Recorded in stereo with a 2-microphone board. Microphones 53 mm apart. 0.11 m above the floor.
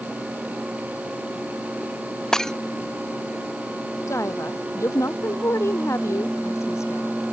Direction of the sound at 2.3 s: 10° left (ahead or behind).